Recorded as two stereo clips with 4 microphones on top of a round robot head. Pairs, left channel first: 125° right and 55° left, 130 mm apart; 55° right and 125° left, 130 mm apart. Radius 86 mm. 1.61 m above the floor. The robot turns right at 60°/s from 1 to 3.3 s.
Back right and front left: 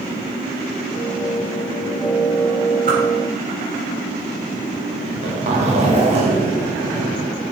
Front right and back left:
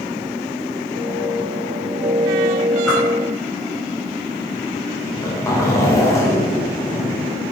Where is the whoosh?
25° left, 3.5 m; by 3.0 s 35° left, 3.5 m.